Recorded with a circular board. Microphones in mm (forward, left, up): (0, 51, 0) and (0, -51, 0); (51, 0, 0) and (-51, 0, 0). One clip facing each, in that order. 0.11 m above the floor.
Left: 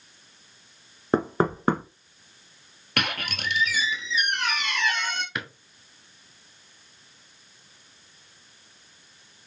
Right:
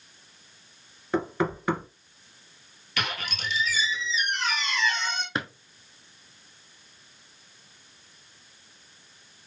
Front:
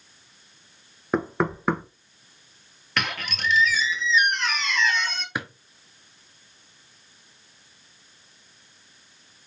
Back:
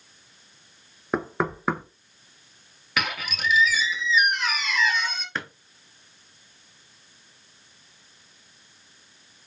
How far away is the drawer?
About 0.7 m.